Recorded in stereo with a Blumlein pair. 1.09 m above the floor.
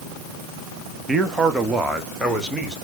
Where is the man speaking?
15° right, 1.2 m; by 2.8 s straight ahead, 2.0 m.